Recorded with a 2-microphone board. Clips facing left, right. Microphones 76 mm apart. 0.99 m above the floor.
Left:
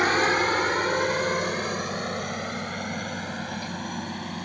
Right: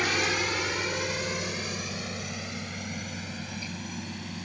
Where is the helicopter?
40° left (ahead or behind); by 4.5 s 50° left (ahead or behind).